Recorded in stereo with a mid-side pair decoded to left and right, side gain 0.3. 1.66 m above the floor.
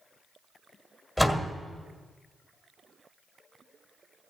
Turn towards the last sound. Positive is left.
turn(degrees=5)